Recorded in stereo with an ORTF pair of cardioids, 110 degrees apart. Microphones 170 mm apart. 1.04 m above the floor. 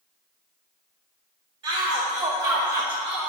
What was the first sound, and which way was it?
A shout, 40° right.